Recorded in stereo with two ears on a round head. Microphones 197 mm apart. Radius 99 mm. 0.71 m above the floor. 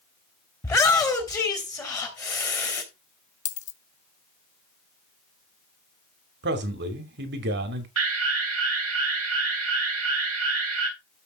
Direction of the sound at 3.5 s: 30° left (ahead or behind).